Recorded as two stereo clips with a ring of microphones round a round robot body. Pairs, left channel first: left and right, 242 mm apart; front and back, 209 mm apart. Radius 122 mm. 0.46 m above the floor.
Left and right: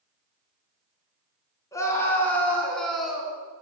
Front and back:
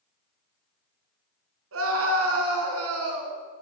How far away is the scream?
About 5 m.